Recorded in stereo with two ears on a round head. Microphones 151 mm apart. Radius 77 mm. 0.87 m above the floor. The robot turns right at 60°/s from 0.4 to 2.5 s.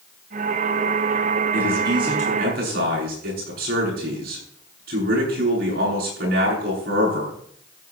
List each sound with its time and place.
1.5 s a man speaking: 175° right, 8.5 m; by 7.3 s 120° right, 8.5 m